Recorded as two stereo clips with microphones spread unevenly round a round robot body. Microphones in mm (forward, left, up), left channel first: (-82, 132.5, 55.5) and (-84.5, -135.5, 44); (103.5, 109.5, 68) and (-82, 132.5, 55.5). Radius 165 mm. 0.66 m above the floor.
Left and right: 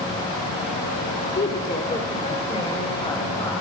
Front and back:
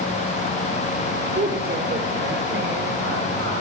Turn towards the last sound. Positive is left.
turn(degrees=165)